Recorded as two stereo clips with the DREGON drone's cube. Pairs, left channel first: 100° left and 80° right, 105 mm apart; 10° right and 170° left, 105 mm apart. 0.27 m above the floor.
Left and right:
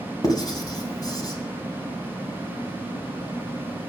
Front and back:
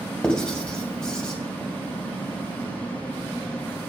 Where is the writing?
70° left, 2 m.